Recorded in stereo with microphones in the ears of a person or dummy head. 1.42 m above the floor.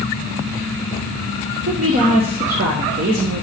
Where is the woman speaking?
45° right (ahead or behind), 1.2 m.